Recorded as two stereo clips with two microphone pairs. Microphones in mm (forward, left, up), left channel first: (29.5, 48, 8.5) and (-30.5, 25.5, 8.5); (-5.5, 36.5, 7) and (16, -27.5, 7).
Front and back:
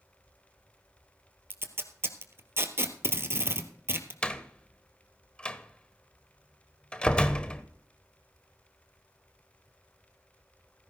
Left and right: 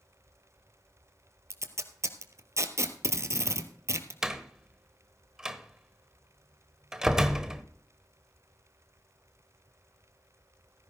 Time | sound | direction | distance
1.5 | tape being pulled | 110° right | 1.3 m
4.2 | a door slam | 5° right | 0.9 m